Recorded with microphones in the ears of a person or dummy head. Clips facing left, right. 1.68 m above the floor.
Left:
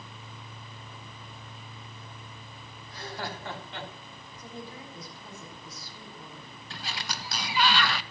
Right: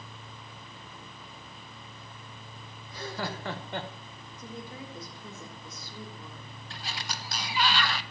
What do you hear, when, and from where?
2.9 s laughter: 70° right (ahead or behind), 1.5 m; by 3.9 s 30° right (ahead or behind), 1.0 m
4.4 s a woman speaking: 70° right (ahead or behind), 3.5 m
6.7 s a sliding door: 60° left (ahead or behind), 0.5 m